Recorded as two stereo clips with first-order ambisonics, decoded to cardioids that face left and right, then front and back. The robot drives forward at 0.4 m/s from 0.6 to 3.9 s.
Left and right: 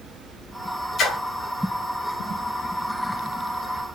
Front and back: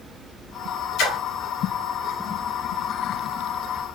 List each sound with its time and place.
1.0 s a splash: 30° left, 2.0 m